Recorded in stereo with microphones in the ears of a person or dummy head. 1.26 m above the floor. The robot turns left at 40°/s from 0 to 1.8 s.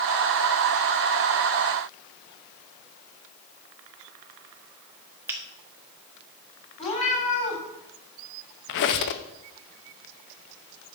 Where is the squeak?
55° left (ahead or behind), 0.7 m.